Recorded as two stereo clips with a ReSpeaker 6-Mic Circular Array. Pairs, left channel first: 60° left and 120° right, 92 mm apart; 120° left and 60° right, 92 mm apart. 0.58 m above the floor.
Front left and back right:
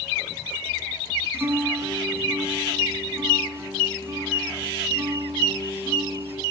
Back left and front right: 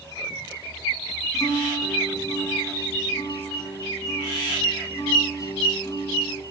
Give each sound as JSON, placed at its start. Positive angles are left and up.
{"t": 1.3, "sound": "a guitar", "azimuth_deg": 170, "distance_m": 7.0}